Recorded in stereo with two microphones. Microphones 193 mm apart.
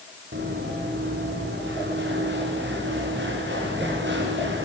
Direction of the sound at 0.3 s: 65° right (ahead or behind).